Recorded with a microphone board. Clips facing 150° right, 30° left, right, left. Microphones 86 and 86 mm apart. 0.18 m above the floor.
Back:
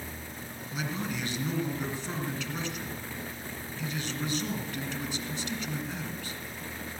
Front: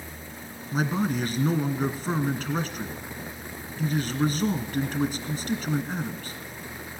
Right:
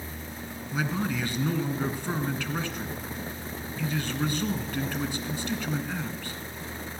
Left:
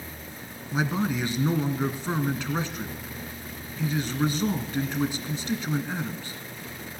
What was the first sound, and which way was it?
A man speaking, 30° left.